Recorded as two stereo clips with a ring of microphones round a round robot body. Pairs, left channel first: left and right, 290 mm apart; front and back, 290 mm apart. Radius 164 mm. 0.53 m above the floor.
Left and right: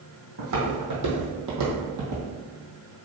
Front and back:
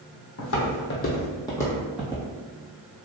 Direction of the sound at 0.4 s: 35° right.